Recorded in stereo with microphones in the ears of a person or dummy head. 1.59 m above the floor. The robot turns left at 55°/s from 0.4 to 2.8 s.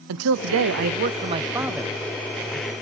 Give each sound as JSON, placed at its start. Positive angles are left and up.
{"t": 0.1, "sound": "a man speaking", "azimuth_deg": -100, "distance_m": 0.5}